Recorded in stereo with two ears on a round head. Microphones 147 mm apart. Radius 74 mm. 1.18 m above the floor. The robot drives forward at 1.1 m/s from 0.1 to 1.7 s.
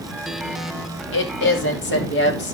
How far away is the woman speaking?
About 2.5 m.